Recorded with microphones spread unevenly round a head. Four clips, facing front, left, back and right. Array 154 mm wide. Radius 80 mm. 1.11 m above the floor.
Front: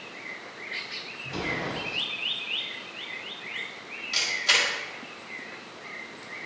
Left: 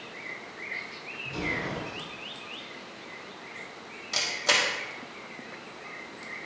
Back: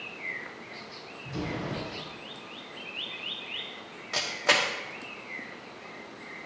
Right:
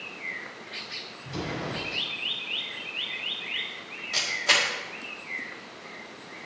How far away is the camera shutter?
About 1.2 m.